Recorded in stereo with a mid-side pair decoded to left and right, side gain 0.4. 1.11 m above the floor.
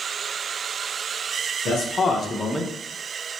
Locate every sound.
1.6 s a man speaking: 65° left, 0.7 m; by 2.7 s 10° right, 0.6 m